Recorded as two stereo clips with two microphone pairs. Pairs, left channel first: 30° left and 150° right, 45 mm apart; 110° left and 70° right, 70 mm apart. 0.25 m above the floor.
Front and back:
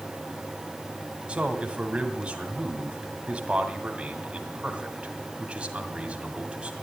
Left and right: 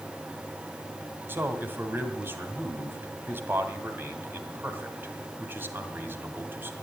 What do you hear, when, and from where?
1.3 s a man speaking: 105° right, 1.7 m